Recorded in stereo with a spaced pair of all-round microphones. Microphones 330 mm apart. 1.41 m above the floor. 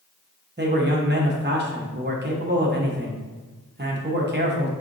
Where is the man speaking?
30° right (ahead or behind), 0.8 m.